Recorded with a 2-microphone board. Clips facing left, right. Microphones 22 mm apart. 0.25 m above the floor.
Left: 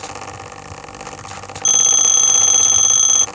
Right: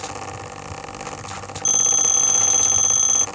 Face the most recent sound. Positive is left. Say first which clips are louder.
# left 5 dB
turn(degrees=35)  # may be behind; listen again after turning